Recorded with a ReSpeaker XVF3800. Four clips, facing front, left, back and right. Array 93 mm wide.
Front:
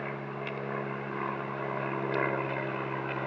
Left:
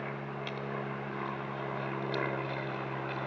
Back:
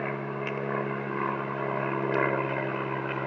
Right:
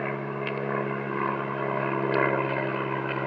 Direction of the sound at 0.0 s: 120° right.